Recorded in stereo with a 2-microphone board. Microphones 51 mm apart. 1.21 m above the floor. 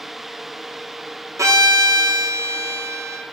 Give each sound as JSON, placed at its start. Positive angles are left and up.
{"t": 1.4, "sound": "a violin", "side_deg": -80, "distance_m": 1.0}